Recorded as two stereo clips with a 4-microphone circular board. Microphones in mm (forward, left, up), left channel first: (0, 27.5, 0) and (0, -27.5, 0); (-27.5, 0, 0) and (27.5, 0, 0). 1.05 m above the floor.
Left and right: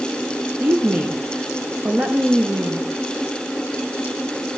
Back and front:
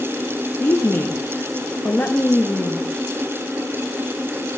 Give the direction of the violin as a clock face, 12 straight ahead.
No violin in this recording.